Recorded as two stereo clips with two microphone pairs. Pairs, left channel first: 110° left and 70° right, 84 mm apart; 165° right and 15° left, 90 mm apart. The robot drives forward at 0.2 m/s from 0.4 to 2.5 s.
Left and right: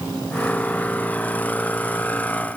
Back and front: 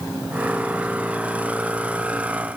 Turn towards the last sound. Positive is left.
No sound to turn to.